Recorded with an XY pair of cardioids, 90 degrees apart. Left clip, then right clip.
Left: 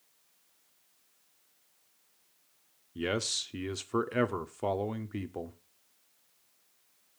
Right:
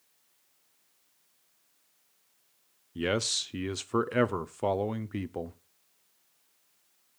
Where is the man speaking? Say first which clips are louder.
Right 3 dB; 25° right, 0.6 m.